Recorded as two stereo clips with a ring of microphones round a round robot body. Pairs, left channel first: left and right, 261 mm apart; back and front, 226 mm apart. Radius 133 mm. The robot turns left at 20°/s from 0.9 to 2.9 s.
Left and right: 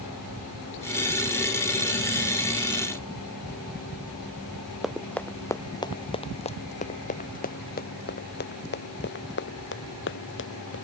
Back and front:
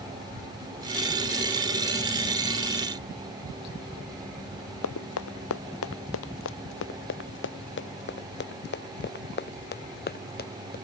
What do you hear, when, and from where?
4.8 s running footsteps: straight behind; by 10.8 s 135° left